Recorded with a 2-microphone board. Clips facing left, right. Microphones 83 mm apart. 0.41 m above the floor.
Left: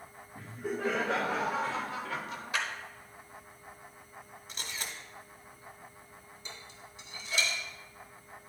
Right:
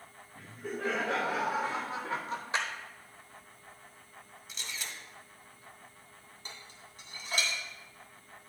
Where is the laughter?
10° left (ahead or behind), 1.8 m; by 2.4 s 35° right (ahead or behind), 1.2 m.